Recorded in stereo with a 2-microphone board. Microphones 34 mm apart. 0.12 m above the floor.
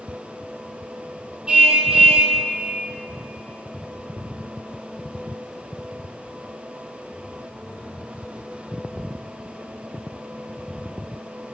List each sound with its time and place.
1.5 s a car horn: 25° right (ahead or behind), 2 m